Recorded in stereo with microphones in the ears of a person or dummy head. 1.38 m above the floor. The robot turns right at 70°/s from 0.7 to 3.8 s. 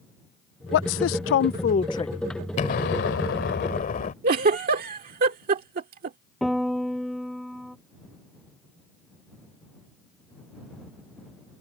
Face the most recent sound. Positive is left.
turn(degrees=0)  # may be behind; listen again after turning